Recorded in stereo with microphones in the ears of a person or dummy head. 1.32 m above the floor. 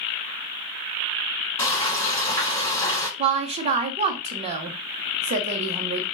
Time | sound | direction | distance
1.6 | frying | 15° left (ahead or behind) | 1.9 m
3.2 | a woman speaking | 30° right (ahead or behind) | 0.7 m